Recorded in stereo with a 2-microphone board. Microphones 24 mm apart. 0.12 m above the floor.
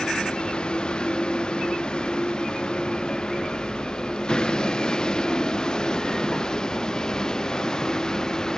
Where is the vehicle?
40° left (ahead or behind); by 8.6 s 30° left (ahead or behind).